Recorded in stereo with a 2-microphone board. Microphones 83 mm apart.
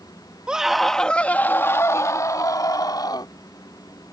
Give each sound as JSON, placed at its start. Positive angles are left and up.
{"t": 0.5, "sound": "a scream", "side_deg": -10}